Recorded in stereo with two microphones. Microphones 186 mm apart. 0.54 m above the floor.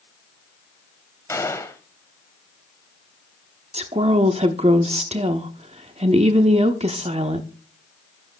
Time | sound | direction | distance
1.3 | a gunshot | 15° left (ahead or behind) | 1.0 m
3.7 | a woman speaking | 35° right (ahead or behind) | 0.7 m